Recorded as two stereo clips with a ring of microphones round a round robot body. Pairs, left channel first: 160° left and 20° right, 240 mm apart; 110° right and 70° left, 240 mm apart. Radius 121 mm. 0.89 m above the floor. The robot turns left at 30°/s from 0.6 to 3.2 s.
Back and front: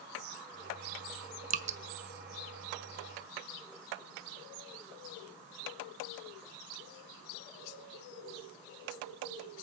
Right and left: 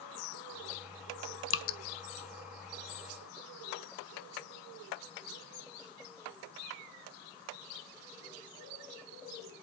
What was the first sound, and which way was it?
Dripping, 80° right.